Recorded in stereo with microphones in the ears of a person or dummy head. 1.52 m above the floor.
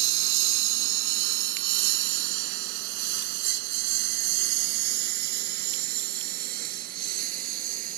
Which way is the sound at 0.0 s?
65° right (ahead or behind).